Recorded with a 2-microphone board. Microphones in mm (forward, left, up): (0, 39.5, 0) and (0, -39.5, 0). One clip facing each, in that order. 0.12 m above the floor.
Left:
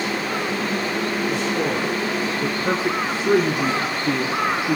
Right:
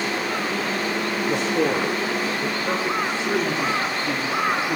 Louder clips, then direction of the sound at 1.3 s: Right 1 dB; 35° right (ahead or behind).